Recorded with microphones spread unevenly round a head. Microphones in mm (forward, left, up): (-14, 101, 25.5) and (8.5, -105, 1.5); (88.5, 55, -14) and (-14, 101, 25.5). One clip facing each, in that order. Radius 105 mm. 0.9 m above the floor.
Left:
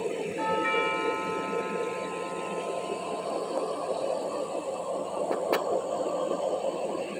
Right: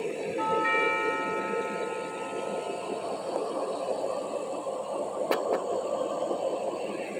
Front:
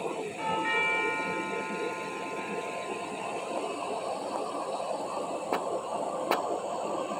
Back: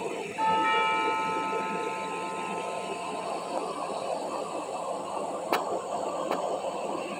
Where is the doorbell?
165° left, 4.5 m.